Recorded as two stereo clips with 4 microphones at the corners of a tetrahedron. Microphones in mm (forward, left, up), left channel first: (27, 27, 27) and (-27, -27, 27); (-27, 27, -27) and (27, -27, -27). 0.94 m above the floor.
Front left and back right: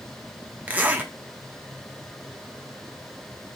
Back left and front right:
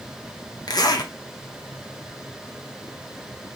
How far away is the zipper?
About 0.7 m.